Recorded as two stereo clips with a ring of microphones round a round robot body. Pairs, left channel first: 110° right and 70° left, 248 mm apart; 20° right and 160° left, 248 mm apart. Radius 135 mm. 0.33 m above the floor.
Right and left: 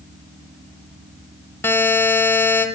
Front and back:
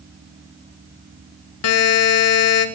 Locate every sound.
1.6 s a buzzer: 30° right, 0.9 m